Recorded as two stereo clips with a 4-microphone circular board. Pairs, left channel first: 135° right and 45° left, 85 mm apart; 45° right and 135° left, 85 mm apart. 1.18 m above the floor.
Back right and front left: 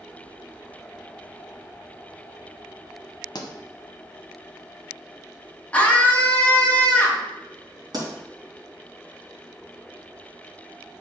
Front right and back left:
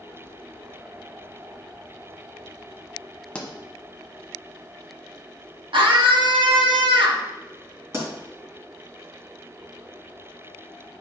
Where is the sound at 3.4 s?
120° right, 0.9 m.